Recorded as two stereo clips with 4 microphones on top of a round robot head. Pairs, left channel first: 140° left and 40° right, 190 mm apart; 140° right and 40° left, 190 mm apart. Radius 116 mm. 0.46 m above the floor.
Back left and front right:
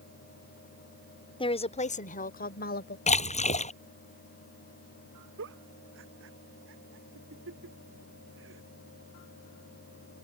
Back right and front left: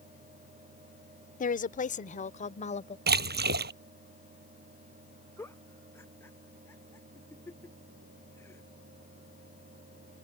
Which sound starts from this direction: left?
A splash, at 3.1 s.